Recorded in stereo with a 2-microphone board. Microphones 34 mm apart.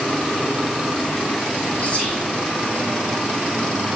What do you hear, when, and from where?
1.8 s whispering: 45° left (ahead or behind), 2 m